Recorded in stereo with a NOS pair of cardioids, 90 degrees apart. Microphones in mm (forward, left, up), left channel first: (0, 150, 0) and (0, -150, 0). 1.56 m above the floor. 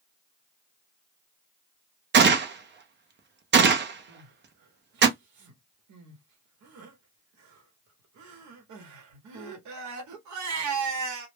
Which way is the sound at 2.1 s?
35° right.